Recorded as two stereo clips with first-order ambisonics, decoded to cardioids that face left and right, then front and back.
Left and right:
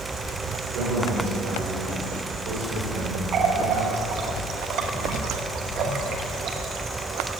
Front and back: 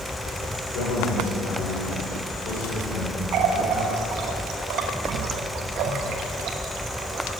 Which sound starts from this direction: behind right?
A running tap, at 3.3 s.